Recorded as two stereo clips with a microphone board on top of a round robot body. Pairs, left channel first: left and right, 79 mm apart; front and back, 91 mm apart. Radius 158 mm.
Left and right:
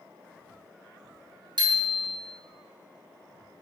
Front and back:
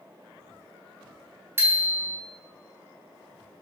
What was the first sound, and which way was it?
A bicycle bell, 115° right.